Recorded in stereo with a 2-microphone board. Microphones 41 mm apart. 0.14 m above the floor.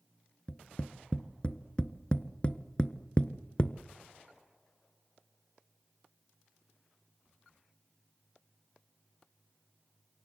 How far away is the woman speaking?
I don't hear a woman speaking.